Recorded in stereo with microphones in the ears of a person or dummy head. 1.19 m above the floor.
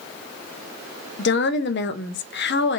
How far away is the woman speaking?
About 0.7 m.